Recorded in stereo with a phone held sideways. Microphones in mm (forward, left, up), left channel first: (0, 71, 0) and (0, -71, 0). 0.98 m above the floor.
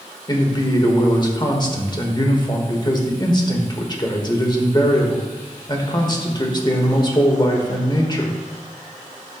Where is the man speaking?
30° left (ahead or behind), 1.3 m.